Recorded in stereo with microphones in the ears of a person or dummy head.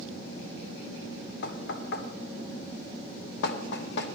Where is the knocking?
65° left (ahead or behind), 1.2 m.